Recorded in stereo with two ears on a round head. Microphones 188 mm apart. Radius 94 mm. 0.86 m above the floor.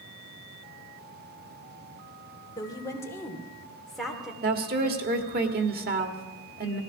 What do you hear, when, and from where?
2.6 s a woman speaking: 20° left (ahead or behind), 2.5 m; by 4.3 s 5° right (ahead or behind), 2.5 m
4.4 s a woman speaking: 45° right (ahead or behind), 1.7 m